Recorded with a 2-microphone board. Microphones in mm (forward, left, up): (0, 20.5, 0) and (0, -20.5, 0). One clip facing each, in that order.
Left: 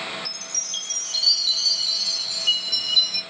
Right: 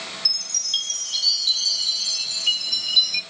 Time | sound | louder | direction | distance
0.2 | a chime | right 6 dB | 75° right (ahead or behind) | 1.0 m